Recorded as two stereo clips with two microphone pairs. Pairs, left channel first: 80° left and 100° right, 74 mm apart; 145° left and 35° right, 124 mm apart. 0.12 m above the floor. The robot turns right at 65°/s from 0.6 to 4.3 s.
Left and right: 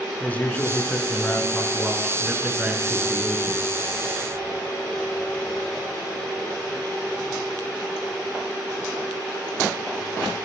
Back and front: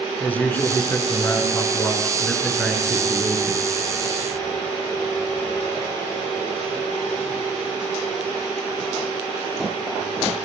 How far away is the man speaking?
About 1.6 m.